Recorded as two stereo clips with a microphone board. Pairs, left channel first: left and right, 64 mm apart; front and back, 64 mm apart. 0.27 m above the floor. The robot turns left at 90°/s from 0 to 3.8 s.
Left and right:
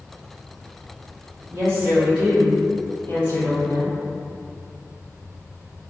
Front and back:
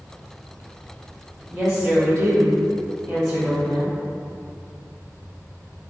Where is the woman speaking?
115° right, 1.4 m; by 3.9 s 40° left, 1.4 m.